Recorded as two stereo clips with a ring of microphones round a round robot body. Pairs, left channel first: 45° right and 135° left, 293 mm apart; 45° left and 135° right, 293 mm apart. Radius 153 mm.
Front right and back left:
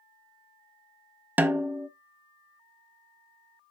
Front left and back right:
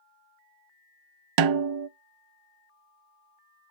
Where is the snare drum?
140° right, 0.5 m.